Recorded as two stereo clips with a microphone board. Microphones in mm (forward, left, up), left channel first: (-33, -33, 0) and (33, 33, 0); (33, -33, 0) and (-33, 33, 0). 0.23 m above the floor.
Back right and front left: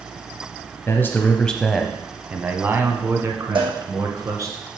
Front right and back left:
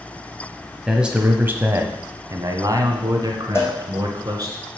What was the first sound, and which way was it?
A man speaking, 145° right.